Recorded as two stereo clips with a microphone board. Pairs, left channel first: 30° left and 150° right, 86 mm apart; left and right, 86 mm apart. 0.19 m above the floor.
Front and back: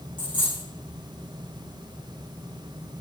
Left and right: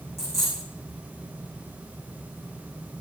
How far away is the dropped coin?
About 6.5 m.